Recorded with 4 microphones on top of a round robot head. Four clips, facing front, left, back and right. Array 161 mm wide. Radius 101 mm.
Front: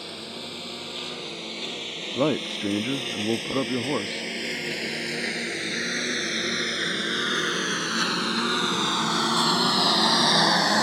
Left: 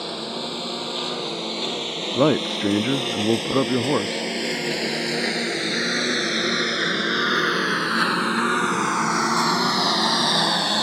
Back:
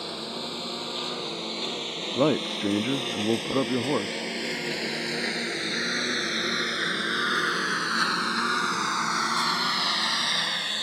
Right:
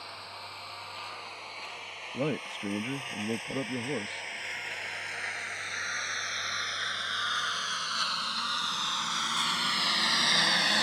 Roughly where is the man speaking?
Left.